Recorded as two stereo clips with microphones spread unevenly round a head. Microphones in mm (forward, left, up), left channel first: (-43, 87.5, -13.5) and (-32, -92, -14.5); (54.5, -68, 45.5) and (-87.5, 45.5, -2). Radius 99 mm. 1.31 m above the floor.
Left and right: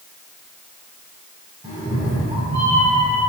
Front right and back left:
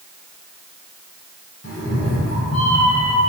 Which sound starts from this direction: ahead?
A cat meowing, at 1.6 s.